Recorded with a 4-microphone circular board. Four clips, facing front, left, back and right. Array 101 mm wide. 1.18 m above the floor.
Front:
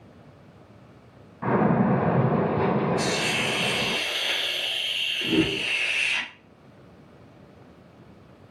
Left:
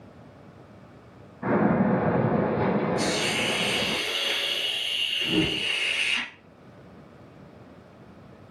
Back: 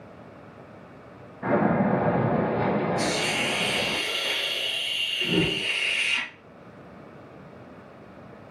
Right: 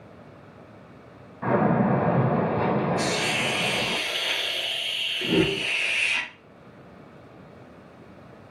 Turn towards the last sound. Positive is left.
turn(degrees=-80)